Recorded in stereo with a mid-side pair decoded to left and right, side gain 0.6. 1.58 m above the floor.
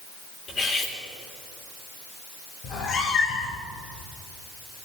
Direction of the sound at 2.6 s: 60° left.